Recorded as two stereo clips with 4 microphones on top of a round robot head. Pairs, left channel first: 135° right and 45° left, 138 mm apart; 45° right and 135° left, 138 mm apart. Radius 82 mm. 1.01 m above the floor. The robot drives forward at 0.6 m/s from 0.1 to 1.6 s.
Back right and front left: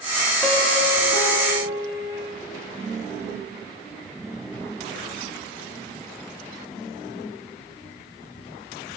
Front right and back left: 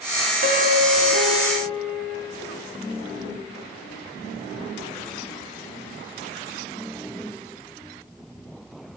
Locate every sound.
0.4 s a piano: 145° left, 1.9 m; by 2.3 s 155° left, 2.5 m